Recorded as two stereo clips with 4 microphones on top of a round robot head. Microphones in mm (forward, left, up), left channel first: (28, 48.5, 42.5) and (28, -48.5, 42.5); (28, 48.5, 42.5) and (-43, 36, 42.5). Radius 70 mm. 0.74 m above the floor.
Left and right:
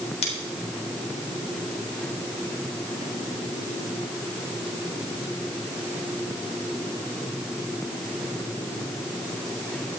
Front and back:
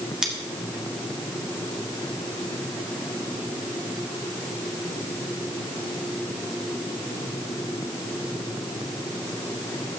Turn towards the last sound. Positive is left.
turn(degrees=110)